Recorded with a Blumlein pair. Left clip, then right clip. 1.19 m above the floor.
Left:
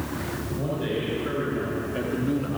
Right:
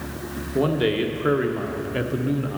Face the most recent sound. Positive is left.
turn(degrees=0)